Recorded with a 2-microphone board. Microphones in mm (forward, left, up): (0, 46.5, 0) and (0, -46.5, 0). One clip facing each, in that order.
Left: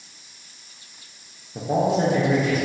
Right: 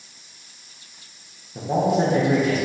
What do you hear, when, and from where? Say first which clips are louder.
1.6 s a man speaking: right 1 dB; 10° left (ahead or behind), 0.6 m; by 2.6 s 40° right (ahead or behind), 0.6 m